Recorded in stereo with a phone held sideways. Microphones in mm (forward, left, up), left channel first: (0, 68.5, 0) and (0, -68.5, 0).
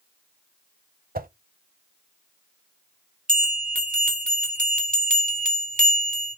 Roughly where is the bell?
Right.